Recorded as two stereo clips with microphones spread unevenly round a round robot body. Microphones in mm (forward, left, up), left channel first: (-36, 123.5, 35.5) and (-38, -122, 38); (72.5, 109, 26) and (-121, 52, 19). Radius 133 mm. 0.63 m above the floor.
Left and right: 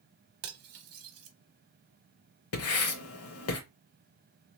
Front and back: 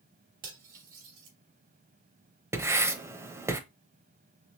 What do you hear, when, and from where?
0.4 s cutlery clinking: 110° right, 0.9 m
2.5 s writing: 120° left, 0.8 m